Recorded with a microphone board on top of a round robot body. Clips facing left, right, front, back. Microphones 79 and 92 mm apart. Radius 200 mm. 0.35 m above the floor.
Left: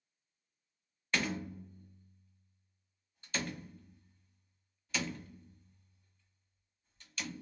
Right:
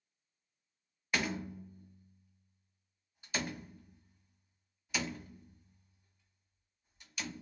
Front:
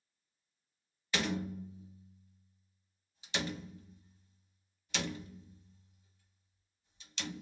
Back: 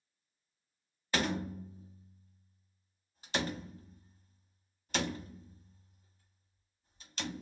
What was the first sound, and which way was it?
A door slam, 165° right.